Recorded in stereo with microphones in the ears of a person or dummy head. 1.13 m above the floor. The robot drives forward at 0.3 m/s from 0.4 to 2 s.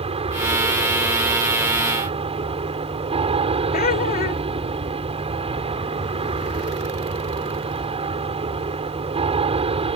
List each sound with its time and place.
0.0 s an aircraft: 40° right (ahead or behind)
3.7 s laughter: 40° left (ahead or behind)